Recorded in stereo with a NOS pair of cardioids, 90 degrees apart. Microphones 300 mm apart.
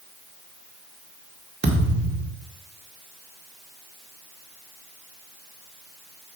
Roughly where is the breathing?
No breathing in this recording.